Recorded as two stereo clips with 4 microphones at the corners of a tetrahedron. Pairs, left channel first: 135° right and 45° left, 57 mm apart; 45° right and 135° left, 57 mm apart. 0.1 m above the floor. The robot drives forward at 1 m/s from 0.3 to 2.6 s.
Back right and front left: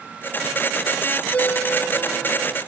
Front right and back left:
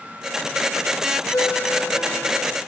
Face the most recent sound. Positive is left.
turn(degrees=-110)